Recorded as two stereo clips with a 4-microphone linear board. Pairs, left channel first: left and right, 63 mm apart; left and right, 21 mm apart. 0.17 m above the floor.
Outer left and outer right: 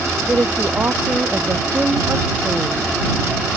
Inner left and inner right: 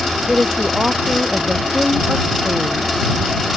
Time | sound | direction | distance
0.3 | a woman speaking | 30° right (ahead or behind) | ?